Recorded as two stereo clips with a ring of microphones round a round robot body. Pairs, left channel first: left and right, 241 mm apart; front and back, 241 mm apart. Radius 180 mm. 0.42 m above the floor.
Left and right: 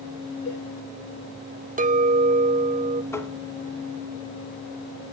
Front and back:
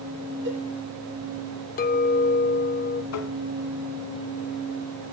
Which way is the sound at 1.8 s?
40° right.